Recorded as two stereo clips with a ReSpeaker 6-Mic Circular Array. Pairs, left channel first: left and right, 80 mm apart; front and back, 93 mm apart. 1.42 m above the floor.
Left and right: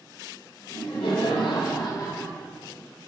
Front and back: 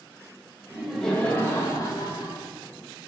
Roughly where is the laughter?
Left.